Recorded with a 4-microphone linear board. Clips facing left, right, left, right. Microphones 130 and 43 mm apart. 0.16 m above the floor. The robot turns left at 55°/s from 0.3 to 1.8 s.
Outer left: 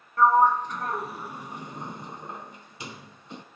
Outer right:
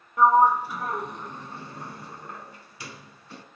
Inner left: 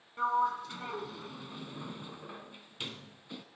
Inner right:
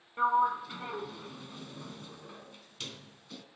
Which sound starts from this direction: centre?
A sliding door, at 0.2 s.